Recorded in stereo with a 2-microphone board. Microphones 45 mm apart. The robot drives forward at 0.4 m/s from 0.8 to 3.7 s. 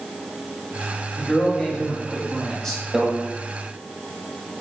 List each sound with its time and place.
1.2 s a man speaking: 15° left (ahead or behind), 0.9 m; by 2.8 s 10° left (ahead or behind), 1.3 m
2.9 s a microwave: 10° right (ahead or behind), 0.7 m